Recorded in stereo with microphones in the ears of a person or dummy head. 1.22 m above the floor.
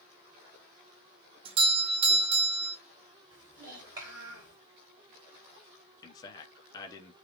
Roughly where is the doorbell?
Right.